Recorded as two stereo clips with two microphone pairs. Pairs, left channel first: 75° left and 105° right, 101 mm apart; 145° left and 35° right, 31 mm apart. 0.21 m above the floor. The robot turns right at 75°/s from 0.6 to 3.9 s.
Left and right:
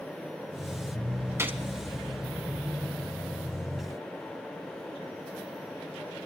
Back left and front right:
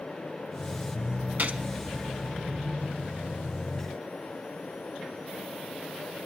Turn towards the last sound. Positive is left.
turn(degrees=145)